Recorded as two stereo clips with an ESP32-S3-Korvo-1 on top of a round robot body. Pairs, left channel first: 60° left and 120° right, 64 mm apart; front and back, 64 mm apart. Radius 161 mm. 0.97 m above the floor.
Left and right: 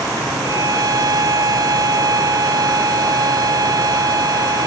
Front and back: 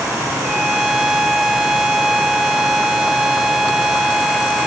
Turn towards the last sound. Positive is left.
turn(degrees=-95)